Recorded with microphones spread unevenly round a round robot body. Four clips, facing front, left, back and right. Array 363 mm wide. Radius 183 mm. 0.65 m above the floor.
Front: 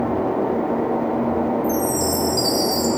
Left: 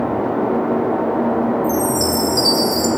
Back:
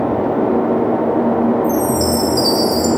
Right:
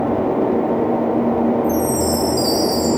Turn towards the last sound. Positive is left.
turn(degrees=80)